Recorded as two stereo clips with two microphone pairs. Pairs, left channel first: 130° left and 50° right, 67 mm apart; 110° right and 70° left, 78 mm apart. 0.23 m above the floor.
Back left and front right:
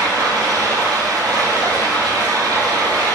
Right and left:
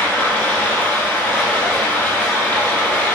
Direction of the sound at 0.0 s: 45° right.